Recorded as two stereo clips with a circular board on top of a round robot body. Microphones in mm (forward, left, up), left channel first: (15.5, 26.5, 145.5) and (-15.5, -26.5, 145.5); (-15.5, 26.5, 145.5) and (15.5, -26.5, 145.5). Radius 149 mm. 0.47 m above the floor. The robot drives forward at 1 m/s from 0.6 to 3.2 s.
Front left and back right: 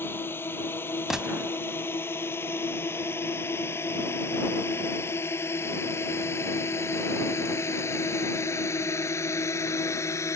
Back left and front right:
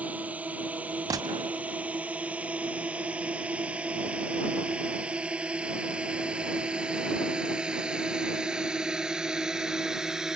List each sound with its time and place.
0.0 s a drone: 5° left; by 10.4 s 20° left
1.1 s a gunshot: 35° right; by 1.6 s 75° right